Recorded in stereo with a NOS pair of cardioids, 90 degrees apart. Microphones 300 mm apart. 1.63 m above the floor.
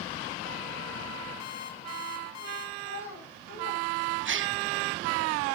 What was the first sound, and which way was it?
An alarm clock, 60° left.